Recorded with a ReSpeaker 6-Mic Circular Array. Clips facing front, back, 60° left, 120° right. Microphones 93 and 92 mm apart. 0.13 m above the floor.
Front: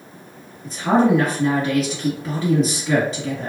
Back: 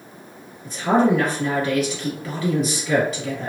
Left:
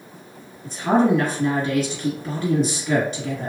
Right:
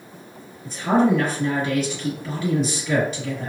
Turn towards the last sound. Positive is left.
turn(degrees=35)